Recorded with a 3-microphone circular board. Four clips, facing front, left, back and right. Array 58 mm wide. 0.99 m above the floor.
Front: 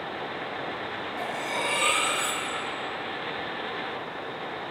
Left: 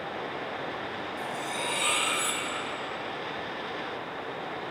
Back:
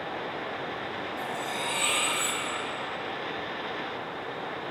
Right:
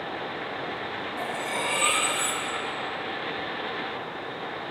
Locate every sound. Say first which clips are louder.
1.2 s cutlery clinking: right 5 dB, front 4 dB; 50° right, 3 m